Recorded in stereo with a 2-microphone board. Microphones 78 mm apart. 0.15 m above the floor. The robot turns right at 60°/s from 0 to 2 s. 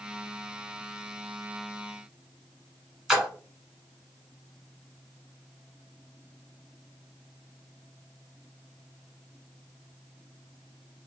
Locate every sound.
3.1 s a splash: 5° right (ahead or behind), 1.3 m